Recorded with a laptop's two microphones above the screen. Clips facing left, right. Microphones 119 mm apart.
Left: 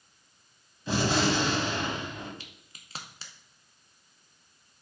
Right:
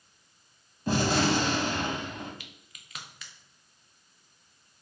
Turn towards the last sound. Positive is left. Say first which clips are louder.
# even
turn(degrees=30)  # may be behind; listen again after turning